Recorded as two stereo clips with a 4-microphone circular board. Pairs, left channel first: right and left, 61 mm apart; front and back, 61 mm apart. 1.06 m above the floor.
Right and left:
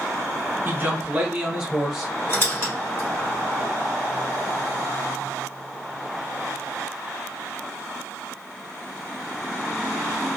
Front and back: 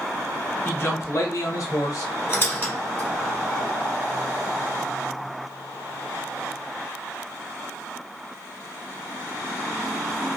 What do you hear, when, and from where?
0.7 s a man speaking: 45° left, 0.8 m; by 2.1 s straight ahead, 1.2 m
2.3 s a squeak: 50° right, 1.6 m